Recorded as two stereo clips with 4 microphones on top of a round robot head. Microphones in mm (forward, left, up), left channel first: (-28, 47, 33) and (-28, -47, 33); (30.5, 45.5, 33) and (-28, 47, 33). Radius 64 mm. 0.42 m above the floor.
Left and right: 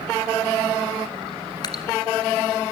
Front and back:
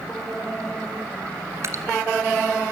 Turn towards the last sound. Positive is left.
turn(degrees=135)